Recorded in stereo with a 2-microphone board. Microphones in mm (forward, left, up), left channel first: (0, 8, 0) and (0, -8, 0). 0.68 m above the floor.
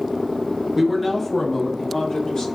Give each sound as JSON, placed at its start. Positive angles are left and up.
{"t": 0.8, "sound": "a man speaking", "side_deg": -20, "distance_m": 0.5}